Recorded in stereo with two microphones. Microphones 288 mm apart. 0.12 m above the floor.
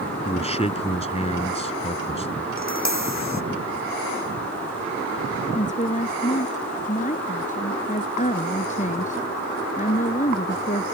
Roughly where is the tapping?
Left.